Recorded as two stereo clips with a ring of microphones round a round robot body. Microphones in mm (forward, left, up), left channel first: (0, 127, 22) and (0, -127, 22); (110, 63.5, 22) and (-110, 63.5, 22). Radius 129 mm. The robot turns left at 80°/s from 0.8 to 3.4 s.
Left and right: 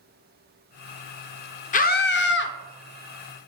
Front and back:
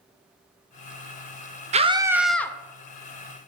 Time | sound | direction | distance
1.7 | a scream | 135° left | 0.6 m